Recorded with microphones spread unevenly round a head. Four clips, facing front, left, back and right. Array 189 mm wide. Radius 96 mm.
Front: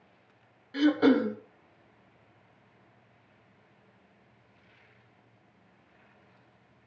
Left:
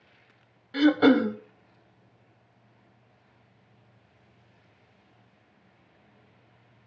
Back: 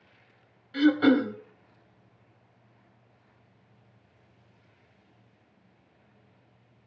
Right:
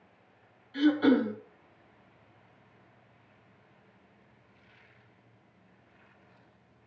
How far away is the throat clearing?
About 1.2 m.